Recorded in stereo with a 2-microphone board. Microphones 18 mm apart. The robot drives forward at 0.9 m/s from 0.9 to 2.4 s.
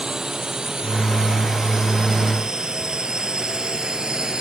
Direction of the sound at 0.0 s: 40° right (ahead or behind).